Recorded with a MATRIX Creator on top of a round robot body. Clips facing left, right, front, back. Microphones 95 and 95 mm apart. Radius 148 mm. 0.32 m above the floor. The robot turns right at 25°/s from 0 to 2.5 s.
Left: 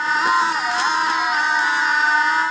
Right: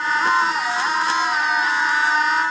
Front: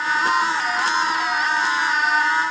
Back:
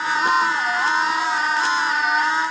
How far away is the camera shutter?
No camera shutter in this recording.